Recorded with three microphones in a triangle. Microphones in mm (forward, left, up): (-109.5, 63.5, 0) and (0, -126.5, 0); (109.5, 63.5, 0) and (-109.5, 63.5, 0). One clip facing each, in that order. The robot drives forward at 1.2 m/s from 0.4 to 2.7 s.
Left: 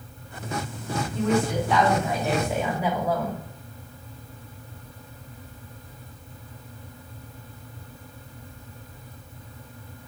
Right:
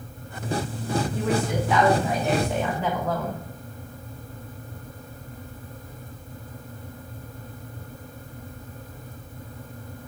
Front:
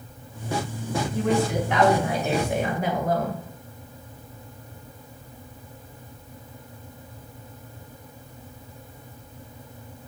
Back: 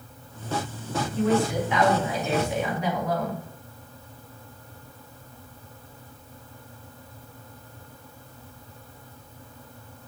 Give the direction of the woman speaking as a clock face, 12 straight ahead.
11 o'clock.